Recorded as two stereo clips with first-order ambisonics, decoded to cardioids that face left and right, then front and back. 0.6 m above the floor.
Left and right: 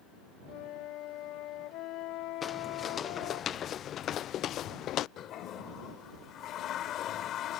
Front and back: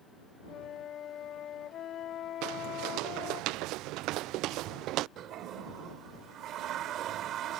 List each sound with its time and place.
0.5 s a flute: 55° left
2.4 s footsteps: 160° left; by 5.1 s 140° left
5.2 s a toilet flushing: 135° left